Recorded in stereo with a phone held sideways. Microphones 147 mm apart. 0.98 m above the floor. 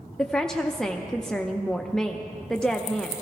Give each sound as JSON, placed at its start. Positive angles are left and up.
{"t": 0.2, "sound": "a woman speaking", "side_deg": 5, "distance_m": 0.5}